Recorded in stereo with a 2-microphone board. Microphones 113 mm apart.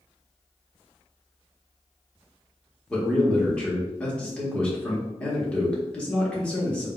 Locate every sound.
2.9 s a man speaking: 10° left (ahead or behind), 1.2 m